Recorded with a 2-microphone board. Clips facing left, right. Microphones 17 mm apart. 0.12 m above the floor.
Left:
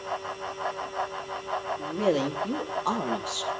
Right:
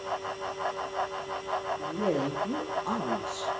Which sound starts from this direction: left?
A woman speaking, at 1.8 s.